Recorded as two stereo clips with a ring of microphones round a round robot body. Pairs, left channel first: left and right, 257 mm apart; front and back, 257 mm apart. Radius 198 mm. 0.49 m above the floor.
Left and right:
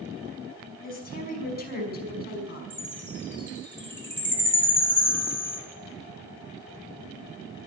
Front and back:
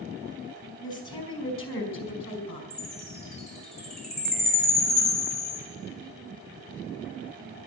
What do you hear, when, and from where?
0.8 s a woman speaking: 35° left, 5 m; by 2.6 s 40° left, 6 m
2.7 s a chime: 10° left, 9 m